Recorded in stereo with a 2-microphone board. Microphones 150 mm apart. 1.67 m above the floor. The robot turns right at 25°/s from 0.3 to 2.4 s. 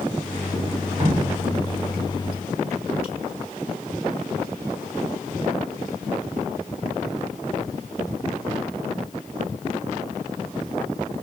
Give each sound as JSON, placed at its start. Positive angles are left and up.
{"t": 1.0, "sound": "dripping", "side_deg": -55, "distance_m": 2.5}